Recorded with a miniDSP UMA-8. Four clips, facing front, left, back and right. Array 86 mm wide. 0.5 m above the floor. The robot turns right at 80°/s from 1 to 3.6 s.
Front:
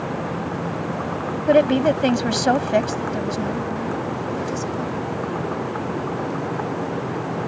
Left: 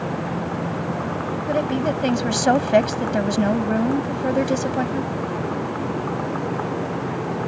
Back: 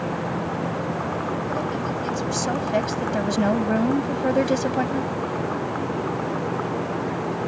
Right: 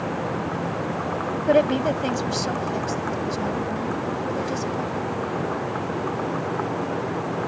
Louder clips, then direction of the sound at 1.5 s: Right 3 dB, front 10 dB; 30° right.